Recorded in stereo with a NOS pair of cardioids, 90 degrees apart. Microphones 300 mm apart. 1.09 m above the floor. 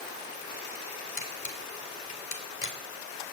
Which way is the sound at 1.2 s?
40° left.